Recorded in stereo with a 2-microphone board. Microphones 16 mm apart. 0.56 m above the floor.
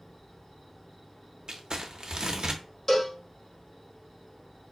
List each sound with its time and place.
0.0 s an insect: 55° left (ahead or behind), 2.5 m
1.5 s crumpling: 60° right (ahead or behind), 0.5 m
2.9 s a cowbell: 20° left (ahead or behind), 1.0 m